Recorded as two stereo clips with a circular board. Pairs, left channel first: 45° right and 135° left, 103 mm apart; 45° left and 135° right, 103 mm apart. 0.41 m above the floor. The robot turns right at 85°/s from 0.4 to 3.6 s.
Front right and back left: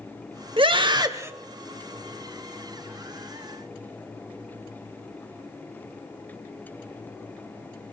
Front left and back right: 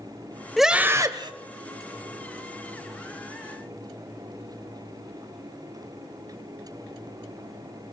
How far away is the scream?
About 1.3 m.